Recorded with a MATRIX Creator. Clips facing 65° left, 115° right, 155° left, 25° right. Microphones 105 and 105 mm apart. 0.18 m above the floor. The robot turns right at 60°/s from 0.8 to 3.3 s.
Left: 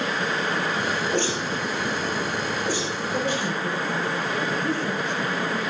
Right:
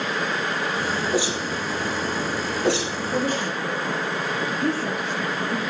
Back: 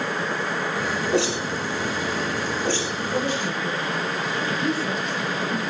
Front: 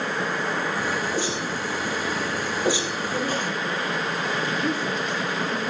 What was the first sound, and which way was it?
A whoosh, 160° left.